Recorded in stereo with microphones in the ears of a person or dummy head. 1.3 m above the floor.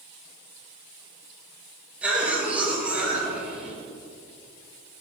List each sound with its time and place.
2.0 s a cough: 10° right (ahead or behind), 1.8 m